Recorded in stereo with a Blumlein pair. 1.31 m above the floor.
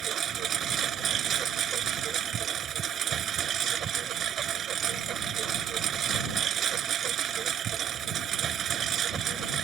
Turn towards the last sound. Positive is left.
turn(degrees=-25)